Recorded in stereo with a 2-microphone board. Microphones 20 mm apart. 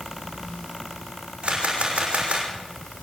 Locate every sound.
1.4 s a camera shutter: 80° right, 5.5 m